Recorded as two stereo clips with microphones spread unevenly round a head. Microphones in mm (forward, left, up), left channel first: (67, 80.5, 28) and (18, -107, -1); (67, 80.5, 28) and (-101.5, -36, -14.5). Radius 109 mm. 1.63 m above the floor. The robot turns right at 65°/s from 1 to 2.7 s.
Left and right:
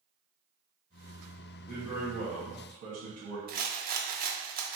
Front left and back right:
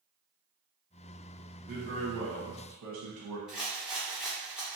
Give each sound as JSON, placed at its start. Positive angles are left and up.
{"t": 1.7, "sound": "a man speaking", "azimuth_deg": 160, "distance_m": 1.1}
{"t": 3.5, "sound": "a rattle", "azimuth_deg": -60, "distance_m": 0.5}